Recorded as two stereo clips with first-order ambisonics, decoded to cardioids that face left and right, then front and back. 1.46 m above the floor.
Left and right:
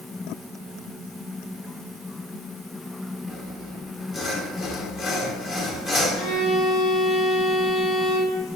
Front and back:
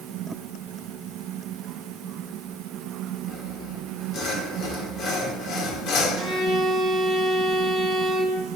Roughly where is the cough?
I don't hear a cough.